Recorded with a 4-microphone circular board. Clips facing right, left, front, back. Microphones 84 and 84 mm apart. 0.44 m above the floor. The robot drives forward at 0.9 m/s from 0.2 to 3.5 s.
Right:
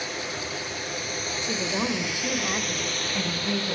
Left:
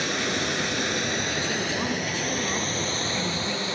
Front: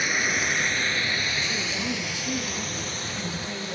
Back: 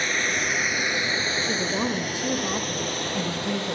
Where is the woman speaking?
160° right, 1.8 m; by 3.8 s 170° right, 3.5 m.